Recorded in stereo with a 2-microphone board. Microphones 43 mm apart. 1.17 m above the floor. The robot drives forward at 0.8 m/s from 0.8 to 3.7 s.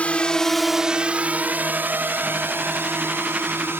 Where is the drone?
35° left (ahead or behind); by 3.8 s 70° right (ahead or behind).